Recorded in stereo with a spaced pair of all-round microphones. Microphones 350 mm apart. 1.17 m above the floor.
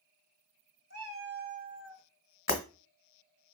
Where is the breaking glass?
35° left (ahead or behind), 1.3 m.